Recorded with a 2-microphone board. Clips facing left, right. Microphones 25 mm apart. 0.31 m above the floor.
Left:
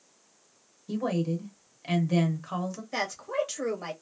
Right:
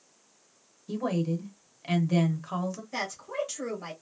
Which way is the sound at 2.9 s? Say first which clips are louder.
Left 6 dB; 30° left (ahead or behind).